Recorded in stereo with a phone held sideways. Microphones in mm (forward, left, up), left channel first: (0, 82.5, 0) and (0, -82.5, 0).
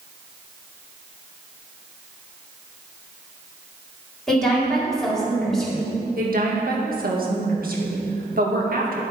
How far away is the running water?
No running water in this recording.